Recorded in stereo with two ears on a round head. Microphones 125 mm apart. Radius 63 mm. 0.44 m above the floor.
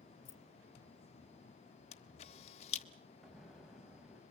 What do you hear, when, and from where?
0.2 s keys jangling: 45° left (ahead or behind), 0.8 m
1.9 s a camera shutter: 45° left (ahead or behind), 0.9 m
3.2 s an explosion: centre (ahead or behind), 1.7 m